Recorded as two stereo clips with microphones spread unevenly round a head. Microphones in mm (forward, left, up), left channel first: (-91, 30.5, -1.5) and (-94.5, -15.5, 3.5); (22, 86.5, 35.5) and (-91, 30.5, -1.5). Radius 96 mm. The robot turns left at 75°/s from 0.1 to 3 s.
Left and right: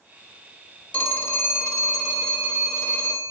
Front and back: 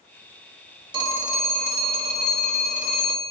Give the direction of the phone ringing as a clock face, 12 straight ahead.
7 o'clock.